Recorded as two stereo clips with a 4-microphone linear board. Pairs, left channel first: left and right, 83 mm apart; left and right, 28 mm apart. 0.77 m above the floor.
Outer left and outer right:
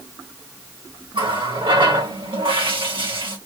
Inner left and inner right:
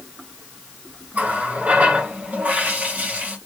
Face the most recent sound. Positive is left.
turn(degrees=-85)